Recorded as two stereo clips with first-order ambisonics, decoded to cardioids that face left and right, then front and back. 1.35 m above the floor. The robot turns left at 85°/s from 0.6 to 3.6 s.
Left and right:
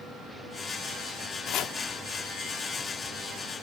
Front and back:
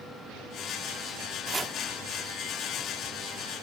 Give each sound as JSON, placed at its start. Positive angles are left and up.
{"t": 1.5, "sound": "chopping", "azimuth_deg": 120, "distance_m": 1.1}